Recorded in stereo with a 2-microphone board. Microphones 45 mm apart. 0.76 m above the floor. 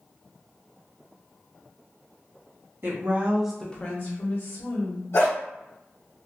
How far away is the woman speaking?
About 1.2 m.